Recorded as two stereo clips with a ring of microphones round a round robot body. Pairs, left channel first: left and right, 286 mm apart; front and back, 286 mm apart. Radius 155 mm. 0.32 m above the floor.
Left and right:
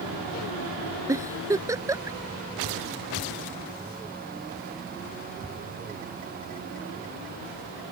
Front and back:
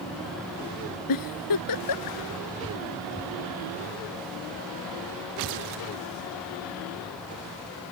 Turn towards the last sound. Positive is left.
turn(degrees=-10)